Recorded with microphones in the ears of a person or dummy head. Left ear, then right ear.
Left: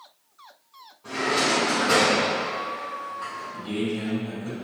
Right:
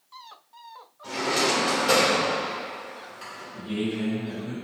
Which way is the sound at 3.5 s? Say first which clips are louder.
Right 1 dB; 75° left (ahead or behind).